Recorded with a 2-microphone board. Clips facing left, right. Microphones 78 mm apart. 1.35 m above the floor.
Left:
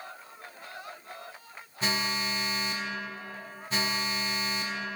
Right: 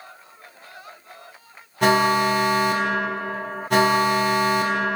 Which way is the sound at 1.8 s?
75° right (ahead or behind).